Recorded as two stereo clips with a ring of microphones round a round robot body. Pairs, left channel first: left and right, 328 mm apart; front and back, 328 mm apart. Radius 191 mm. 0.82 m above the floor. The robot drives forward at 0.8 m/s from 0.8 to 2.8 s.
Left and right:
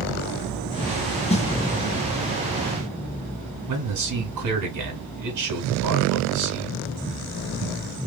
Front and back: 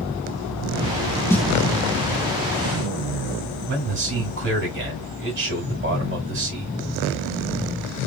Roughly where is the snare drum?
Ahead left.